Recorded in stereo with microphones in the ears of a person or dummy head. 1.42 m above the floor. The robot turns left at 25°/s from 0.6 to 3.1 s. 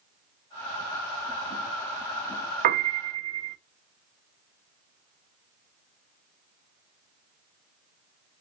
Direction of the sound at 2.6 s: 45° right (ahead or behind).